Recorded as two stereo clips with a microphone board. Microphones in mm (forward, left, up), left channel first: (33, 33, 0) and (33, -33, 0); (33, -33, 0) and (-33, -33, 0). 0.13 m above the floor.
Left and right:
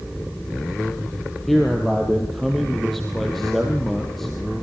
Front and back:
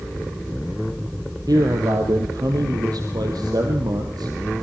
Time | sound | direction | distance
1.5 | a man speaking | 175° left | 3.5 m